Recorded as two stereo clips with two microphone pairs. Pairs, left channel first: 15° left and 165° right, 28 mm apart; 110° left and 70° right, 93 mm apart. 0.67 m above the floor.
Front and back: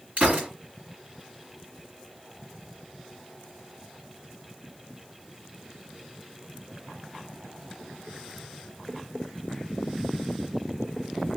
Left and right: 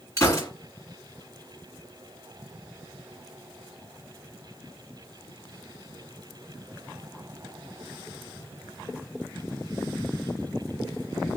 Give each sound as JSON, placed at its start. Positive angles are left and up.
{"t": 0.2, "sound": "a gunshot", "azimuth_deg": 165, "distance_m": 2.0}